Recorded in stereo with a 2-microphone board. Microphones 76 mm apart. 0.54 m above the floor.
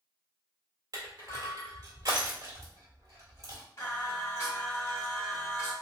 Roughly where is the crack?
No crack in this recording.